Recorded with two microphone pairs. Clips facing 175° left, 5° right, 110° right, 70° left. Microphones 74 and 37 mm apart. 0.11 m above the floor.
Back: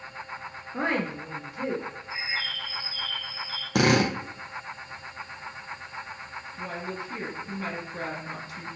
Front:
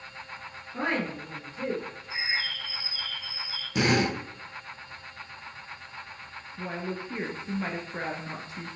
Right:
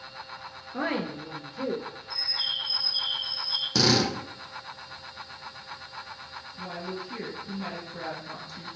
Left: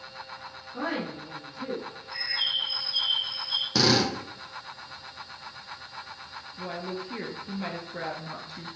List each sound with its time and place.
0.7 s a woman speaking: 140° right, 1.4 m; by 1.9 s 100° right, 2.5 m
2.1 s a bird: 55° left, 0.8 m
3.8 s a drill: 155° left, 1.7 m
6.6 s a woman speaking: 20° left, 1.6 m